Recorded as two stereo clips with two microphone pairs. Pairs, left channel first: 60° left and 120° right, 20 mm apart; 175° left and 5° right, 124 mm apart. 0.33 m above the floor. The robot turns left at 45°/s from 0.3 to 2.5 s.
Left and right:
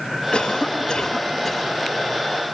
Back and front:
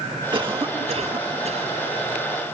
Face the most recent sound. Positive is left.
turn(degrees=-60)